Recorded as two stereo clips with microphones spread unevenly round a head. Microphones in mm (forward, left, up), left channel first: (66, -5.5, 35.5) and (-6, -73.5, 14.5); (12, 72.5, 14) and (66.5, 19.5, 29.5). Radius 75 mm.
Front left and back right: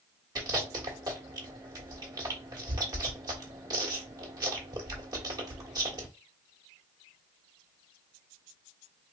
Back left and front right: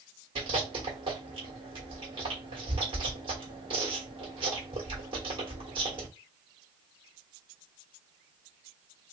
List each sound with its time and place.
0.3 s chewing: 80° right, 1.5 m